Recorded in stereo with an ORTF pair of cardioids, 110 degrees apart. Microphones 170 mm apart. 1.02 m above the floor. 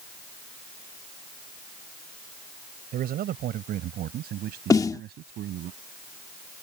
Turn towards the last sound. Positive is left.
turn(degrees=20)